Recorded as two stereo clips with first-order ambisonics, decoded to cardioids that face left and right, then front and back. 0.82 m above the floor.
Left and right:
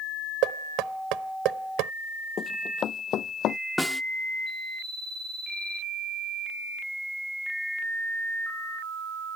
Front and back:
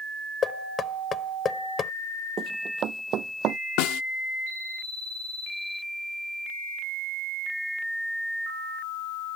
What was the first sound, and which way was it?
Knocking, 65° right.